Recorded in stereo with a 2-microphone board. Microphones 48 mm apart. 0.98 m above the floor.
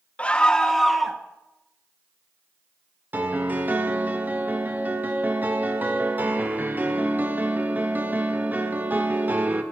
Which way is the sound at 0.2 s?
25° left (ahead or behind).